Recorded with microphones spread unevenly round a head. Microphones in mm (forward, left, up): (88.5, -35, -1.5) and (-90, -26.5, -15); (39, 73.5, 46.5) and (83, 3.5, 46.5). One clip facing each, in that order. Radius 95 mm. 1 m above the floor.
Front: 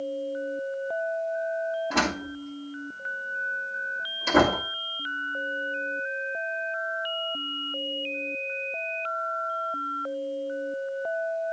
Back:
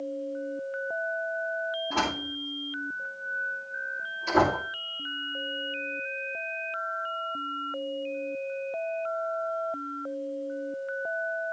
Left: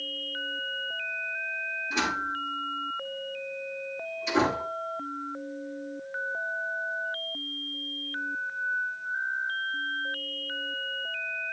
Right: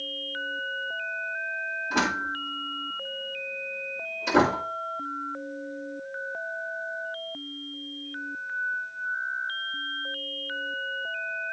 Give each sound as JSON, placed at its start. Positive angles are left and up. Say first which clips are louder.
{"t": 1.9, "sound": "a door slam", "louder": "front 3 dB, right 2 dB", "azimuth_deg": -25, "distance_m": 6.0}